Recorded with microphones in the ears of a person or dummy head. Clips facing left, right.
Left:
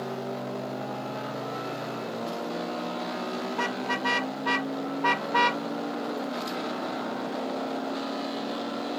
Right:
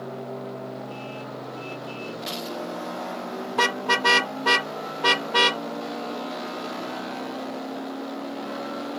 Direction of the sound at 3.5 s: 70° right (ahead or behind).